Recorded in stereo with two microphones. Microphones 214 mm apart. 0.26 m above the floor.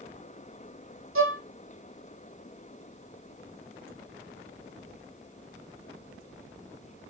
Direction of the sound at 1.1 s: 75° right (ahead or behind).